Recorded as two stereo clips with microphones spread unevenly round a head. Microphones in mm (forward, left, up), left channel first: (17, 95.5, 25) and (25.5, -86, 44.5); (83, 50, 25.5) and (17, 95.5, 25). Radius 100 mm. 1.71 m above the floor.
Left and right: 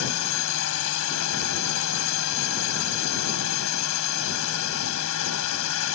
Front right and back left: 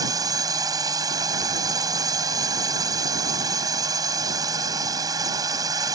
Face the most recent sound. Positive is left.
turn(degrees=105)